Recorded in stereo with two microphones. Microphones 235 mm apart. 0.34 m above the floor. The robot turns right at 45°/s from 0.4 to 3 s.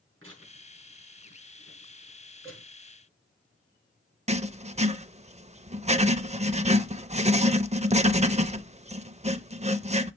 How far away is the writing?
About 0.6 m.